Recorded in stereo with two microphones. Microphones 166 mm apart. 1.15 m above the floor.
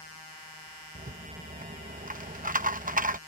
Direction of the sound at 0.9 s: 55° right (ahead or behind).